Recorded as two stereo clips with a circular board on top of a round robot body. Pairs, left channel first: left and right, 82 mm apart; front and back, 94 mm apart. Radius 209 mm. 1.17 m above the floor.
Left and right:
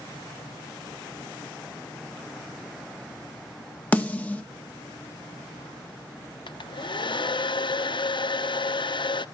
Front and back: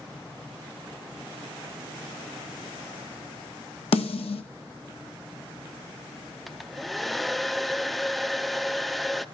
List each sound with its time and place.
3.9 s a snare drum: 20° left, 0.9 m
6.5 s a hair dryer: 90° left, 0.8 m